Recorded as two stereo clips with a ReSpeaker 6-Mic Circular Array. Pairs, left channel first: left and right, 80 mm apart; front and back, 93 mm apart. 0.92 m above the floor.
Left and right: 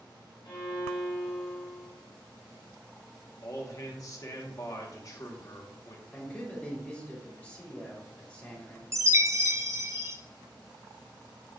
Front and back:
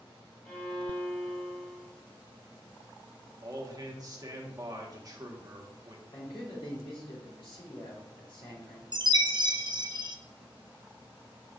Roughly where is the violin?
Left.